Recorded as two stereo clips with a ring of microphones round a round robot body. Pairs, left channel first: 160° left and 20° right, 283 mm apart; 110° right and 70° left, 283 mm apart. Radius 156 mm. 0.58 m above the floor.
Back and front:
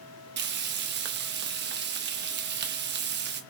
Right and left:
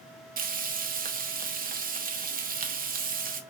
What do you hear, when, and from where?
0.4 s frying: 15° left, 0.7 m